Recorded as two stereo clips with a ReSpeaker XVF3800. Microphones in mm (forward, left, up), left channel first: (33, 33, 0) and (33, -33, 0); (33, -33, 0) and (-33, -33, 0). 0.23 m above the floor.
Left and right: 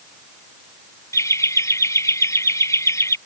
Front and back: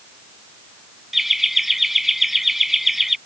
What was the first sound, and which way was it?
Laughter, 95° left.